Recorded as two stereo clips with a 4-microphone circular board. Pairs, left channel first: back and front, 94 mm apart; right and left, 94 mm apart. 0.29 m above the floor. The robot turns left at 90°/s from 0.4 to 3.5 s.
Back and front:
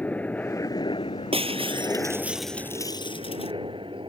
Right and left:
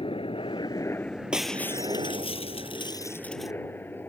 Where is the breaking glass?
10° left; by 3.5 s 175° left.